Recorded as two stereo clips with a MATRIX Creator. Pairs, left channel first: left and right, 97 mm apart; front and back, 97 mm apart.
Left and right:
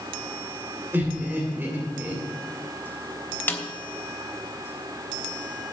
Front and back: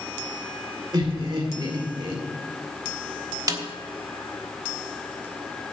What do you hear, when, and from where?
0.9 s laughter: 155° right, 2 m
3.5 s a snare drum: 150° left, 1.2 m